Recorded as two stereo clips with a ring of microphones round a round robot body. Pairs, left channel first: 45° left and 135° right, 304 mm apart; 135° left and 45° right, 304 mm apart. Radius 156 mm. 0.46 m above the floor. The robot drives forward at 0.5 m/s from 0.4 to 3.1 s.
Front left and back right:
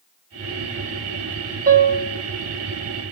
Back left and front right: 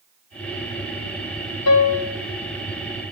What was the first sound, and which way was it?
A piano, 165° left.